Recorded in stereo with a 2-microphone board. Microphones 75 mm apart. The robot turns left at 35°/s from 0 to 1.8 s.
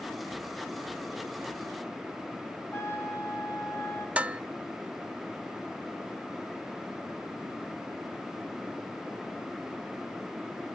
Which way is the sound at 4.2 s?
20° right (ahead or behind).